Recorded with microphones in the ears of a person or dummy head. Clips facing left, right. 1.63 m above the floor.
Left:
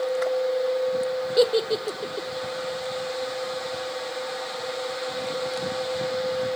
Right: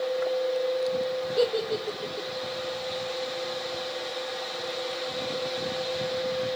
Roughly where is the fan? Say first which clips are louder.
Left 3 dB; centre.